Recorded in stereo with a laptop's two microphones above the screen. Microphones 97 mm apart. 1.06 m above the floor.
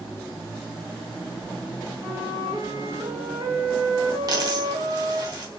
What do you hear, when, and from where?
2.0 s a flute: 30° right (ahead or behind), 2 m
4.3 s a dropped coin: 45° right (ahead or behind), 2 m